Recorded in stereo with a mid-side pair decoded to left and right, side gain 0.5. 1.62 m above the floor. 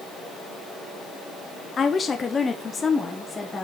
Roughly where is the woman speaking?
Ahead left.